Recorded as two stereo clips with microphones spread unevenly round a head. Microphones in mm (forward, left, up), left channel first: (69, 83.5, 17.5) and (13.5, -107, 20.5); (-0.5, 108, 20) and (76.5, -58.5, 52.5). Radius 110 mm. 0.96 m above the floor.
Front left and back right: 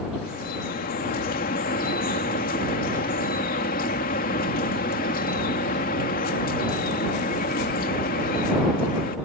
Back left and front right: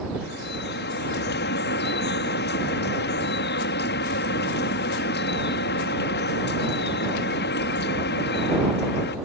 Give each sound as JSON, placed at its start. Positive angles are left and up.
{"t": 0.2, "sound": "dripping", "azimuth_deg": 120}